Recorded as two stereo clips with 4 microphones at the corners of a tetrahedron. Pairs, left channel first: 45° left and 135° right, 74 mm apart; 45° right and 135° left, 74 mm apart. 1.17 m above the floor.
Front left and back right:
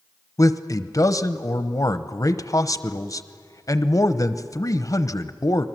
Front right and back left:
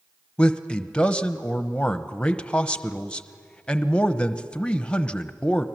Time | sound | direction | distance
0.4 | a man speaking | 25° left | 0.9 m